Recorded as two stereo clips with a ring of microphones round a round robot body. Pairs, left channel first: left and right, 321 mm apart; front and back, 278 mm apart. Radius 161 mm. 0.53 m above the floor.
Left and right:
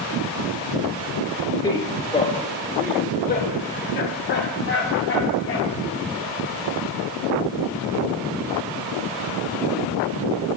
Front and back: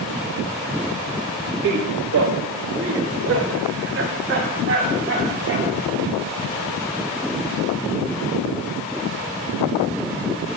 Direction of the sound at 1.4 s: 170° left.